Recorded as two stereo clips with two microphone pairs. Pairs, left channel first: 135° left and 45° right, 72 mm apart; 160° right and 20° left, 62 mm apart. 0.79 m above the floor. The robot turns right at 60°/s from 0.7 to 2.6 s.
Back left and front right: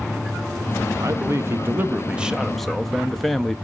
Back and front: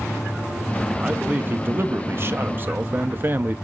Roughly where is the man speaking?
Ahead right.